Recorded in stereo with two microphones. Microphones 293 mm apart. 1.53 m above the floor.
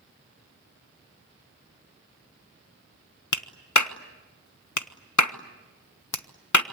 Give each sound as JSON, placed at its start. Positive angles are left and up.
{"t": 3.3, "sound": "a clap", "side_deg": 80, "distance_m": 1.0}